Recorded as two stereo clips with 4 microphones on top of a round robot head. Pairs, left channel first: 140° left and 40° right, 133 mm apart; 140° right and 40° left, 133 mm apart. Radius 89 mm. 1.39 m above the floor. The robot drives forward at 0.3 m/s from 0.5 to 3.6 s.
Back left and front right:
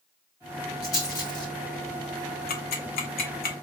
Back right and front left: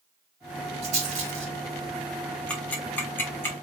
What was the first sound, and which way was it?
A rattle, 75° left.